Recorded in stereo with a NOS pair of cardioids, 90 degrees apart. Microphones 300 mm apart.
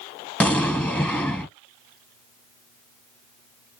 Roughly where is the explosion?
Ahead.